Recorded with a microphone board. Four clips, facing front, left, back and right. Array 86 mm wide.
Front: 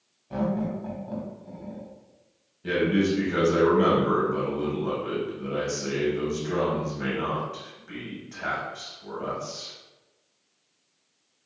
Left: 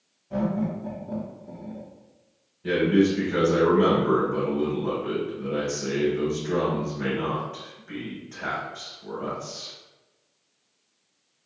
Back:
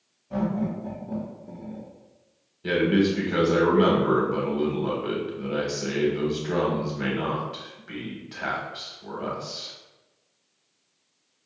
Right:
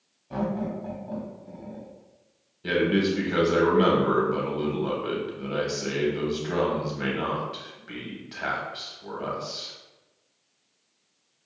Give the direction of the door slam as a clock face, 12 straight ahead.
No door slam in this recording.